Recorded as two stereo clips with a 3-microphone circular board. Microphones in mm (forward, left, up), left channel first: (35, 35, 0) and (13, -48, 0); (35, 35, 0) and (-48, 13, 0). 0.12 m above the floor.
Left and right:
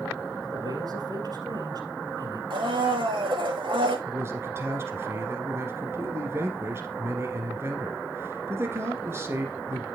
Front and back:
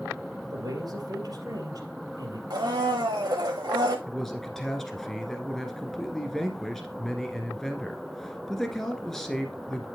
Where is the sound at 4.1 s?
70° right, 1.4 m.